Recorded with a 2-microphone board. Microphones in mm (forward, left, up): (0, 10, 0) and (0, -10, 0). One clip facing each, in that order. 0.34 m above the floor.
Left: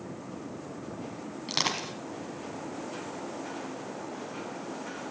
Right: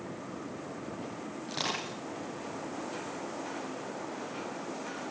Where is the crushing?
60° left (ahead or behind), 4 m.